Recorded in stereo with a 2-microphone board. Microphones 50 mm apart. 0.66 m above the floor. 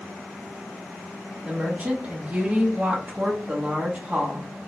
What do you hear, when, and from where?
1.4 s a woman speaking: 25° right (ahead or behind), 0.7 m